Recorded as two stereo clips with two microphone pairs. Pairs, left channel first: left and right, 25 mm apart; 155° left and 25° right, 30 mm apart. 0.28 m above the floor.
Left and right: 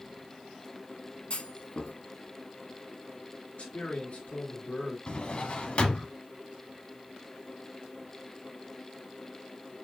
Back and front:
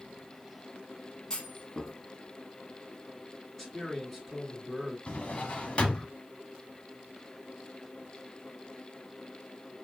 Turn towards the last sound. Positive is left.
turn(degrees=110)